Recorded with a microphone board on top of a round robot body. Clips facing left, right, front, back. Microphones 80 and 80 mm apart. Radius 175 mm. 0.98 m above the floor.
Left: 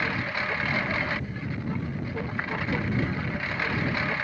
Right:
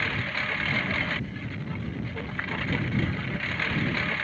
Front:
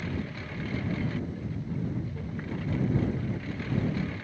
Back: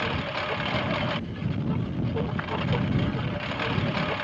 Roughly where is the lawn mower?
Behind.